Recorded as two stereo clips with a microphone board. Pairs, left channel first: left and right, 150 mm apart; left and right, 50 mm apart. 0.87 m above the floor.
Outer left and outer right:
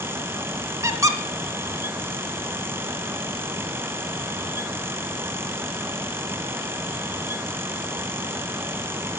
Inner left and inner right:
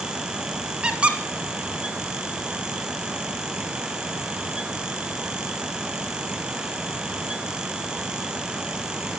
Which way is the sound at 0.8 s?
20° right (ahead or behind).